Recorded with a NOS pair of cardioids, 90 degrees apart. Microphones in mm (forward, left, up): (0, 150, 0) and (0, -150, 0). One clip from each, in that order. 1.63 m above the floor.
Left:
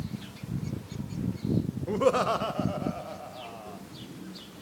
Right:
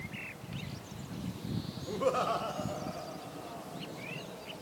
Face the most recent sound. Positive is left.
turn(degrees=35)